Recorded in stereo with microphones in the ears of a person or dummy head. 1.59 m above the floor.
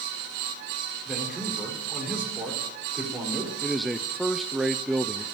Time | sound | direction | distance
1.1 | a man speaking | 5° right (ahead or behind) | 4 m
3.6 | a man speaking | centre (ahead or behind) | 0.6 m